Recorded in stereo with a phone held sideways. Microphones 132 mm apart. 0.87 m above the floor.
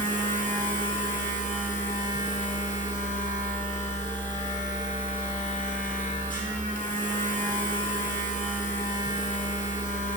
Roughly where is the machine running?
Left.